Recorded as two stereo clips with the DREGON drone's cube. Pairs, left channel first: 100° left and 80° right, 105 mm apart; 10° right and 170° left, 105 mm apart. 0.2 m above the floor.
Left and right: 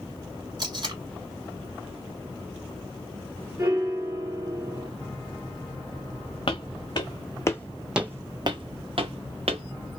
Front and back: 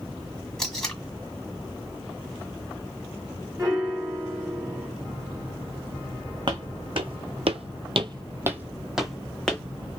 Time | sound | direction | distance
0.6 | tape being pulled | 95° right | 1.4 m
3.6 | a piano | 130° right | 2.0 m
6.5 | footsteps | 130° left | 1.1 m